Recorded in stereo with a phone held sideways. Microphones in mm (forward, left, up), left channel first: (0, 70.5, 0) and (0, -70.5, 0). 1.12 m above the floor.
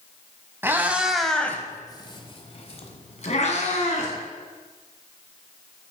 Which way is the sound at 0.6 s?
20° right (ahead or behind).